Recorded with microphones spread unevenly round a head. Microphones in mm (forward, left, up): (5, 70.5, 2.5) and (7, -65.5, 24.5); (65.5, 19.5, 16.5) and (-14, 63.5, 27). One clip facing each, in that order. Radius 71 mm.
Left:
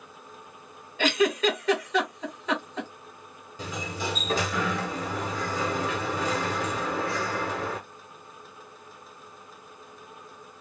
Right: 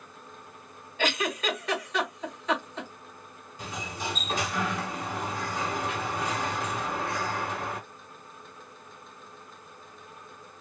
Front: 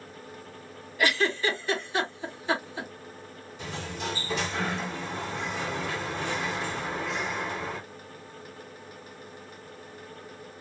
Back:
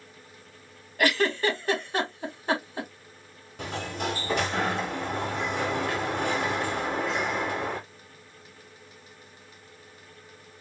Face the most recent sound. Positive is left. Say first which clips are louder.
# left 3 dB, back 4 dB
turn(degrees=115)